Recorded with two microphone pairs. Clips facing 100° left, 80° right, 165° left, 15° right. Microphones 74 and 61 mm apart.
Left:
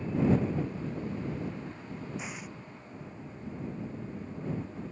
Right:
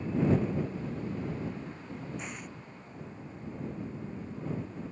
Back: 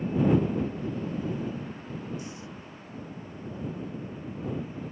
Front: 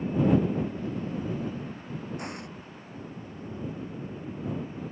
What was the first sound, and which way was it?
An explosion, 15° left.